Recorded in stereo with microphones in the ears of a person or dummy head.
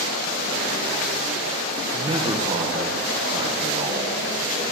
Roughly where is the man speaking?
Right.